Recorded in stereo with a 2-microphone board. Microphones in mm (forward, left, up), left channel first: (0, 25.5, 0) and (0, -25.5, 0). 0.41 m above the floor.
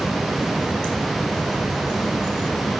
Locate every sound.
Only background noise.